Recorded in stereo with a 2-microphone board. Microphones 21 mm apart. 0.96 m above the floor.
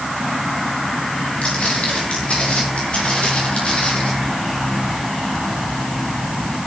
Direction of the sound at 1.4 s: 70° left (ahead or behind).